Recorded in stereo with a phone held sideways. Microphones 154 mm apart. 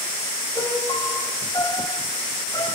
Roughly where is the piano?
Left.